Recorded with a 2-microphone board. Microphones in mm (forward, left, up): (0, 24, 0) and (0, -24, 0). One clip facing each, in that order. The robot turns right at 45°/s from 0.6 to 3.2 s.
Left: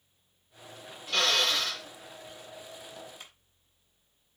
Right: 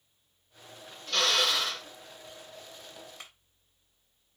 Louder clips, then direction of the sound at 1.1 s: Even; 170° left.